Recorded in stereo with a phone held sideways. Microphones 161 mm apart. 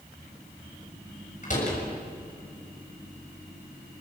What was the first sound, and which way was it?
A door slam, 50° left (ahead or behind).